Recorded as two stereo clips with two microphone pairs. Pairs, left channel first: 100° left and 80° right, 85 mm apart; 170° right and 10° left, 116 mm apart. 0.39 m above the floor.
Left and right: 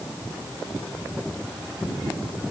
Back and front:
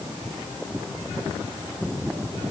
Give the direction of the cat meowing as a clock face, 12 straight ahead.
No cat meowing in this recording.